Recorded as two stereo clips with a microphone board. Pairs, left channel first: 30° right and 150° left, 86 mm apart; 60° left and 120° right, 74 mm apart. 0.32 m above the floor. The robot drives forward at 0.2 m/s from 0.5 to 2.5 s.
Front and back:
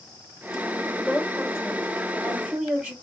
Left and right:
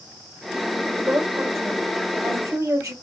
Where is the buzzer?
No buzzer in this recording.